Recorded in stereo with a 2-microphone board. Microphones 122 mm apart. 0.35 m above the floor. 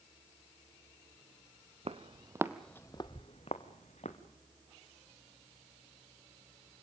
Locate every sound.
1.9 s footsteps: 55° right (ahead or behind), 1.4 m; by 4.2 s 70° left (ahead or behind), 2.5 m